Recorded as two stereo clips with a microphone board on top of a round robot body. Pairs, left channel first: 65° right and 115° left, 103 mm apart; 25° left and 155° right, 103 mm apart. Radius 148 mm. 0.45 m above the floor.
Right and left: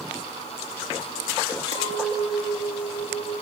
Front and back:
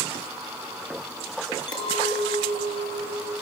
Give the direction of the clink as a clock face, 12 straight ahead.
1 o'clock.